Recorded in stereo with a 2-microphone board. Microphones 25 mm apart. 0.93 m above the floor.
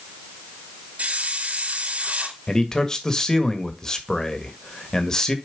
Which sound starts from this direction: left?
A man speaking, at 2.5 s.